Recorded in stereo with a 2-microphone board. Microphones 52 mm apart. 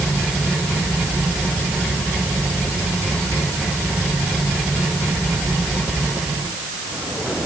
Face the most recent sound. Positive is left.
No sound to turn to.